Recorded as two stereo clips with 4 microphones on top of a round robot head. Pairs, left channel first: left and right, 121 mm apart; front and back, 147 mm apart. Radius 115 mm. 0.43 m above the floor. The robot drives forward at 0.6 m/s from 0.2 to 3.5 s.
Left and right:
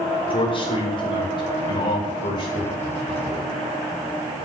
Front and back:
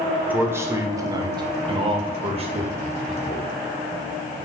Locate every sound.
0.3 s a man speaking: 105° left, 1.9 m; by 3.5 s 150° left, 3 m